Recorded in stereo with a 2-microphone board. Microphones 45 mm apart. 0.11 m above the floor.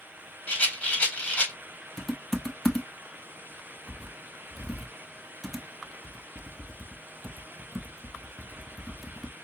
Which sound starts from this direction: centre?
Typing on a keyboard, at 2.0 s.